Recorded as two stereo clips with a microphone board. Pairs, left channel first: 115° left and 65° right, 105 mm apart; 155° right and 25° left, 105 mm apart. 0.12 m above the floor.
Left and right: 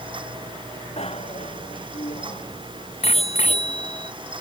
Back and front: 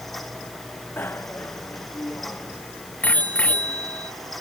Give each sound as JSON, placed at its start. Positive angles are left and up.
{"t": 1.0, "sound": "a bicycle bell", "azimuth_deg": 135}